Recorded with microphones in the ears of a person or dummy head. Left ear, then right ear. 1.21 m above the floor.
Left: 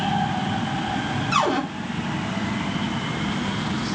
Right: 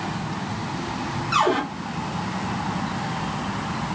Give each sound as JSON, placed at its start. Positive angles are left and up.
{"t": 1.3, "sound": "a cupboard door", "side_deg": 5, "distance_m": 1.8}